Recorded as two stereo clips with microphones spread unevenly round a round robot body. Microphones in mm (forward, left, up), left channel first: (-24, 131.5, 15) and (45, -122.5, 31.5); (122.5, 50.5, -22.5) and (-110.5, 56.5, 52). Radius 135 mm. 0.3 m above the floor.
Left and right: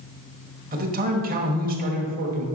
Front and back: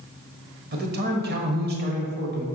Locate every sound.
0.7 s a man speaking: 125° right, 1.3 m